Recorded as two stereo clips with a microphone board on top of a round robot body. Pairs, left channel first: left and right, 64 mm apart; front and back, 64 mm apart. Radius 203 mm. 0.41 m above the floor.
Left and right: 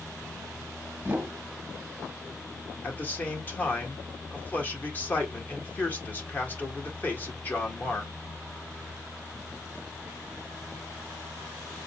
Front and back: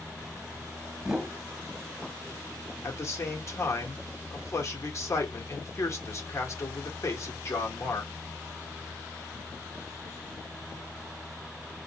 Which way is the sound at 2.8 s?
30° left.